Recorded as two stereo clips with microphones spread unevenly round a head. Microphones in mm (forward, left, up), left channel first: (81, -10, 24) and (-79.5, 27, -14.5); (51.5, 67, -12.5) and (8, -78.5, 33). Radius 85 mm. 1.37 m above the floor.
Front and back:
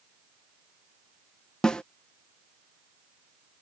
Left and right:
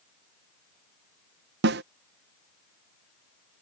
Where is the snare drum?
95° right.